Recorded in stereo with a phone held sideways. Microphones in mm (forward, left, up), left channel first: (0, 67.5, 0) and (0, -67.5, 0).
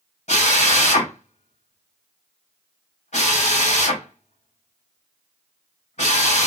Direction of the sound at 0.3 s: 60° left (ahead or behind).